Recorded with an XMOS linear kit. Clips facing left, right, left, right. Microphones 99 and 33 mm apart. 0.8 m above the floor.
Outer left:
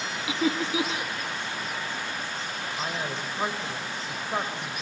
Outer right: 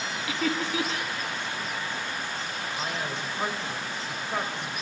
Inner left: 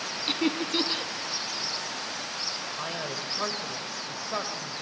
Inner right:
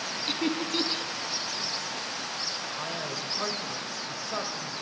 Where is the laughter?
20° left (ahead or behind), 1.2 m.